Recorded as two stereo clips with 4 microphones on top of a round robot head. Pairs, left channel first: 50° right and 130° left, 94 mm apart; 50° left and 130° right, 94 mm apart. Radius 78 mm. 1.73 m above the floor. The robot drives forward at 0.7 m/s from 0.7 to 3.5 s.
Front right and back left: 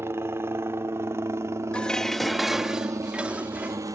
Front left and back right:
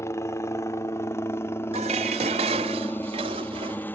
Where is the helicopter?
85° left; by 4.0 s 105° left.